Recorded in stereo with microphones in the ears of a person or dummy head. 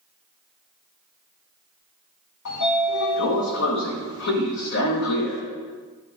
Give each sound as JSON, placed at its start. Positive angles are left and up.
{"t": 2.5, "sound": "a sliding door", "side_deg": 65, "distance_m": 1.4}